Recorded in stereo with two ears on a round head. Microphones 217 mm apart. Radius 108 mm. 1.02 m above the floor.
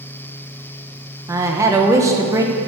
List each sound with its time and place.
1.3 s a woman speaking: 15° right (ahead or behind), 0.6 m